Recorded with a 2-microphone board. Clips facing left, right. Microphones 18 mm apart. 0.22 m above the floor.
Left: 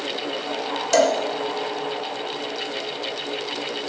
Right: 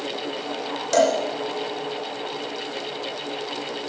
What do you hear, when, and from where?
0.9 s a cowbell: 5° left (ahead or behind), 3.5 m